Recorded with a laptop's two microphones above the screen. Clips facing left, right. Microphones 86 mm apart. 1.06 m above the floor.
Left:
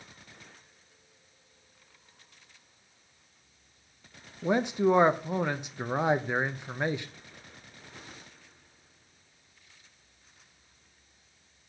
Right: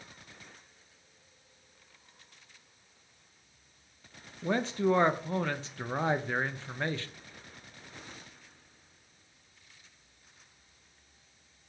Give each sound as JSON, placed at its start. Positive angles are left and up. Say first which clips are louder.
{"t": 4.4, "sound": "a man speaking", "louder": "left 3 dB", "side_deg": 15, "distance_m": 0.5}